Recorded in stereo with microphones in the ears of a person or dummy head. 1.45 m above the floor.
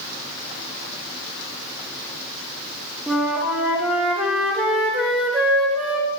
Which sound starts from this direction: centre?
A flute, at 3.1 s.